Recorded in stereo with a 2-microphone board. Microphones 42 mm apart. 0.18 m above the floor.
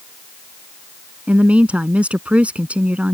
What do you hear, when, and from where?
1.3 s a woman speaking: 30° right (ahead or behind)